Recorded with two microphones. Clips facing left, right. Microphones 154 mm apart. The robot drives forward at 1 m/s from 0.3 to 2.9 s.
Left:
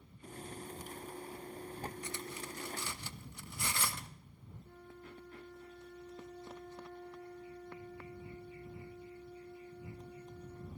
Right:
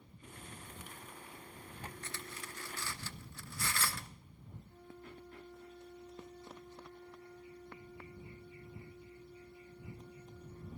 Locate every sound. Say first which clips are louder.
2.0 s cutlery clinking: left 4 dB; 15° left (ahead or behind), 1.1 m; by 4.1 s 20° left (ahead or behind), 0.9 m
4.6 s a flute: left 1 dB; 75° left (ahead or behind), 8.5 m